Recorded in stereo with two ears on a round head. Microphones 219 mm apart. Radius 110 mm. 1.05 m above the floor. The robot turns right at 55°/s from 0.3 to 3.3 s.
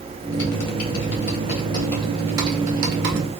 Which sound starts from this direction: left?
Typing on a keyboard, at 0.3 s.